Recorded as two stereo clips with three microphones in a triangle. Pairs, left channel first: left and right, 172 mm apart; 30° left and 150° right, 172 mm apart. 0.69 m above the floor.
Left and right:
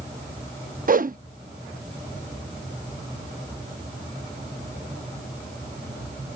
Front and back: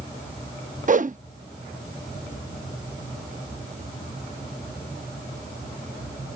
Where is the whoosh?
115° right.